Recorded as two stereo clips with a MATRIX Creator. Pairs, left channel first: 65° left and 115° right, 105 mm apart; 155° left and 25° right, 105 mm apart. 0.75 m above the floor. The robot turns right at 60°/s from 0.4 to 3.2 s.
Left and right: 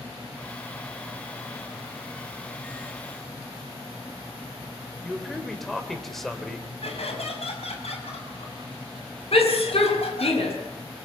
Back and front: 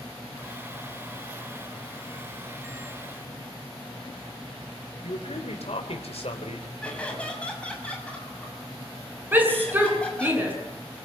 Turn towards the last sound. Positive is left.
turn(degrees=50)